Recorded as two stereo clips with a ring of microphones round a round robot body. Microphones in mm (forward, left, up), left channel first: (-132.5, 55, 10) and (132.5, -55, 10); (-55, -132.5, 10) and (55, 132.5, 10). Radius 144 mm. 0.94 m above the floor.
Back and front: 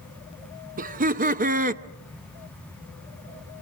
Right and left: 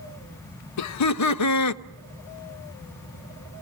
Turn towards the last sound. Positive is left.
turn(degrees=-85)